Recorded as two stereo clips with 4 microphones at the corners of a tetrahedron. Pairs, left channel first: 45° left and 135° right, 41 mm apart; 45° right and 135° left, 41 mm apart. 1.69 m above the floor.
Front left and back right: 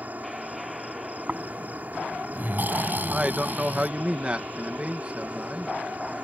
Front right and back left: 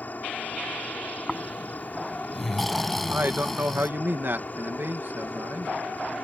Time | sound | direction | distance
0.0 | an insect | 90° right | ?
1.3 | snoring | 130° right | ?
3.1 | a man speaking | 165° left | ?